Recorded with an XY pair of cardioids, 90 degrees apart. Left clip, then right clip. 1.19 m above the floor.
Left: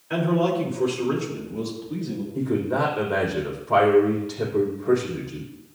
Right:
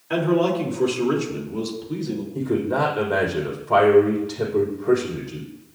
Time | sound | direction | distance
0.1 | a man speaking | 35° right | 3 m
2.4 | a man speaking | 15° right | 4.5 m